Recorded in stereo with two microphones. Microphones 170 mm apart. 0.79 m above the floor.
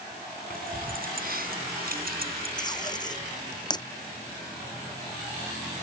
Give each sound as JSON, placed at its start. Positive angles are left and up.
{"t": 0.5, "sound": "keys jangling", "side_deg": -60}
{"t": 2.6, "sound": "tape being pulled", "side_deg": 25}